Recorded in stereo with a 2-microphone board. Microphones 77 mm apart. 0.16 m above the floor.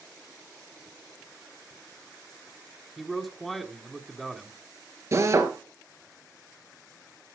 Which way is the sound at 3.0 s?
Centre (ahead or behind).